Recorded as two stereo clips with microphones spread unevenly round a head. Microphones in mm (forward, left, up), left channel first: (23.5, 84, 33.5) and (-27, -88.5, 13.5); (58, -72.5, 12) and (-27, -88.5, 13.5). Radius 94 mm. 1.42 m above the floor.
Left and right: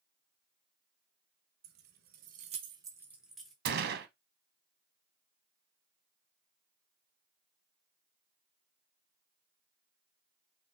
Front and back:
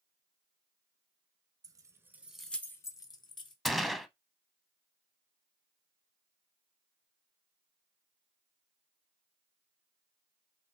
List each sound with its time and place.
1.6 s keys jangling: 140° right, 0.8 m; by 3.5 s 10° right, 1.0 m
3.6 s a gunshot: 80° right, 0.7 m